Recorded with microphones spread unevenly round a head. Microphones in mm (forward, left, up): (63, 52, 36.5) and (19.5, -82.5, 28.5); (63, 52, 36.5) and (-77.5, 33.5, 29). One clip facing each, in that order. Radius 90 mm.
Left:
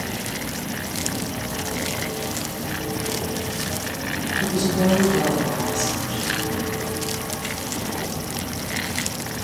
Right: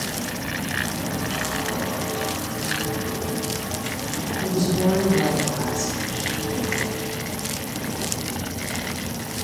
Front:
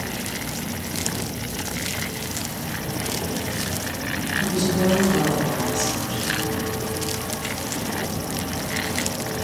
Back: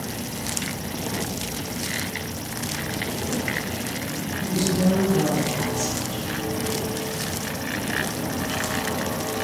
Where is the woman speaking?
15° left, 3 m.